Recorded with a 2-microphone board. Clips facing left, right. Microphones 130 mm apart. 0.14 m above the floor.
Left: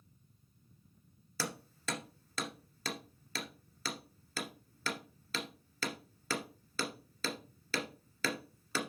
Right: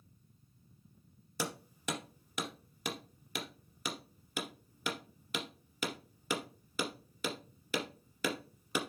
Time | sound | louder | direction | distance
1.4 | hammering | right 2 dB | 15° right (ahead or behind) | 2.0 m